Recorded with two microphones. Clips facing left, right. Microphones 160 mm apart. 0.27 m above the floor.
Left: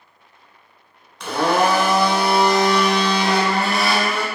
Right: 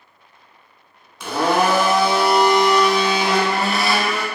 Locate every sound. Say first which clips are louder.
1.2 s a blender: even; 5° right (ahead or behind), 0.7 m